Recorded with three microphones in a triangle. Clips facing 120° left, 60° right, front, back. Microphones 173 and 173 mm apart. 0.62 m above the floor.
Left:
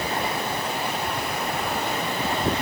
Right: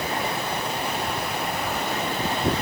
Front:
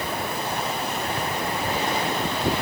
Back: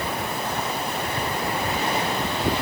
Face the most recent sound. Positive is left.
No sound to turn to.